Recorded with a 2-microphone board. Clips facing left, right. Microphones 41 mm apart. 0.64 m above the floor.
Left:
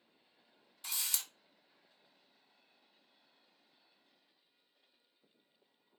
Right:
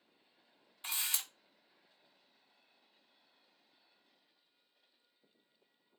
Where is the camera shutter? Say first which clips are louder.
Right 2 dB; 35° right (ahead or behind), 0.5 m.